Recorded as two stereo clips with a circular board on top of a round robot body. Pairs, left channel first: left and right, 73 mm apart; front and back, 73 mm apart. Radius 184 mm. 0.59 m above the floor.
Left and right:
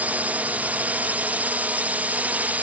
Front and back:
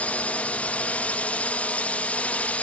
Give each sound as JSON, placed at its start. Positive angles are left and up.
{"t": 0.0, "sound": "a drone", "azimuth_deg": -50}